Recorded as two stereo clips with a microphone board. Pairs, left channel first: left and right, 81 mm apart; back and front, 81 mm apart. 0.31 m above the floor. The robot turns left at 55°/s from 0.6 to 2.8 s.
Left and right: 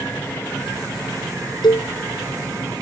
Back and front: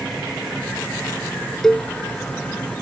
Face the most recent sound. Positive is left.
turn(degrees=35)